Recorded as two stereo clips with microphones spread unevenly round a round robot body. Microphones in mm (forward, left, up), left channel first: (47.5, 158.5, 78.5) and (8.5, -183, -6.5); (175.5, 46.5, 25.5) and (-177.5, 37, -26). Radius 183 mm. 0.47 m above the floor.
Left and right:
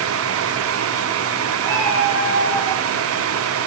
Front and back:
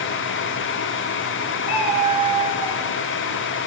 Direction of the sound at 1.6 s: 50° right.